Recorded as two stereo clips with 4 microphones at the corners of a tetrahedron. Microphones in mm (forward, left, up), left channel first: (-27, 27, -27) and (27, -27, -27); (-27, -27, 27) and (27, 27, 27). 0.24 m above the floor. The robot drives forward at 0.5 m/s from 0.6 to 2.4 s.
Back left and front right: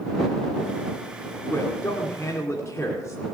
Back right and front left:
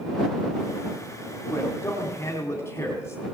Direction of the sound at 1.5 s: 175° left.